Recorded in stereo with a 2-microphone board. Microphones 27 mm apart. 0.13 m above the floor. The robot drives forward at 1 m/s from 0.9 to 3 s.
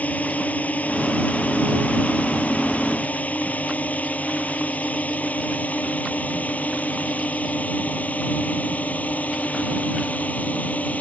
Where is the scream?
No scream in this recording.